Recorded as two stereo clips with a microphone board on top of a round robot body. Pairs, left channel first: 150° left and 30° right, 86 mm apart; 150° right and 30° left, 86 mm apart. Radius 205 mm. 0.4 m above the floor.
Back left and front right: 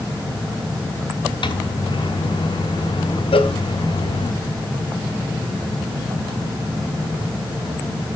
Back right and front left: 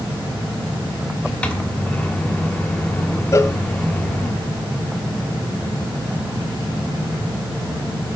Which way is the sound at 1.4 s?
135° left.